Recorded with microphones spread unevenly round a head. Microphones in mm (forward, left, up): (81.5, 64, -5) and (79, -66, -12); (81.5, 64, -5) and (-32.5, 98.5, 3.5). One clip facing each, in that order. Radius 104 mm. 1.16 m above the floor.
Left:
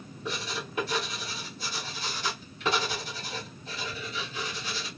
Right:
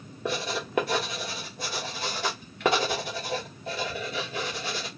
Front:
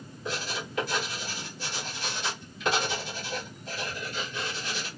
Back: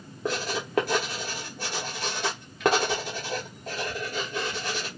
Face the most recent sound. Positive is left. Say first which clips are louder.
# right 5 dB, back 5 dB
turn(degrees=-145)